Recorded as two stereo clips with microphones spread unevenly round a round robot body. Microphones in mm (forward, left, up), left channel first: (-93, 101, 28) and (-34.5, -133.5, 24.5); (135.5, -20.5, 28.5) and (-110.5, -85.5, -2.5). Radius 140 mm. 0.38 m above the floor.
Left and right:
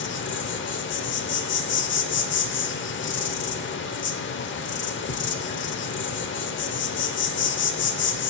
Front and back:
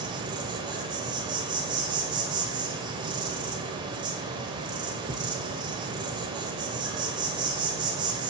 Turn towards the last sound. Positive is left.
turn(degrees=130)